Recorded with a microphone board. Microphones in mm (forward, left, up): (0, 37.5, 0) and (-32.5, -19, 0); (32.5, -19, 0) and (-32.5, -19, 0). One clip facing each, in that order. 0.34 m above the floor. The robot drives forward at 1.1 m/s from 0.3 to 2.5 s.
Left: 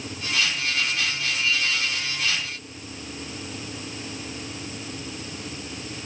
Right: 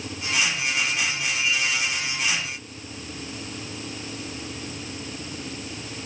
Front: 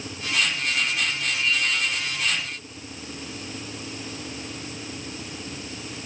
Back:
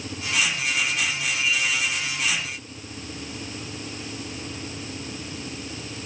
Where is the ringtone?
I don't hear a ringtone.